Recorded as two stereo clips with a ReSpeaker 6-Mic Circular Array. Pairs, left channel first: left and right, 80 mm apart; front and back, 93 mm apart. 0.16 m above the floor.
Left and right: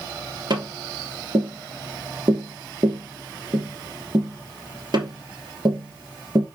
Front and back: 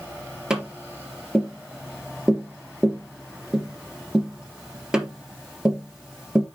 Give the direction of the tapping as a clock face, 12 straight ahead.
3 o'clock.